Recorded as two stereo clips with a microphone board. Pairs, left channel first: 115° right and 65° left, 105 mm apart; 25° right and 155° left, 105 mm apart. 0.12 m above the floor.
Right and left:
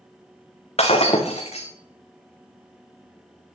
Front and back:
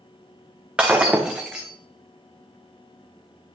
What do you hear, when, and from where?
0.8 s breaking glass: 120° right, 2.5 m